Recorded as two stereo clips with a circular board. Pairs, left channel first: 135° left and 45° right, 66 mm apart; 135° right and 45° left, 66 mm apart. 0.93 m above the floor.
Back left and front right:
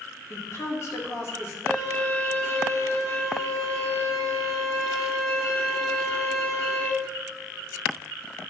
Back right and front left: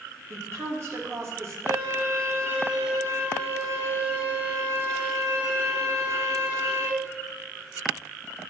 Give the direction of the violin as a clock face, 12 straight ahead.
9 o'clock.